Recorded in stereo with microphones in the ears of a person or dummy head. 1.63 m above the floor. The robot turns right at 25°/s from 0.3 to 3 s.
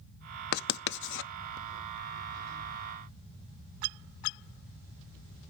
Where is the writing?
55° left (ahead or behind), 0.5 m; by 1.3 s 70° left (ahead or behind), 0.5 m.